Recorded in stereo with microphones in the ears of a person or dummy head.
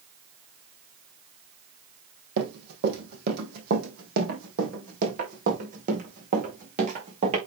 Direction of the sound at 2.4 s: 60° right (ahead or behind).